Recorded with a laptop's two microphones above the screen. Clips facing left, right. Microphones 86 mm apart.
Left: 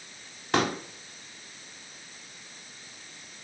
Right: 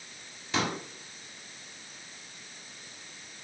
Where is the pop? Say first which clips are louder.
Left 5 dB; 60° left (ahead or behind), 2.0 m.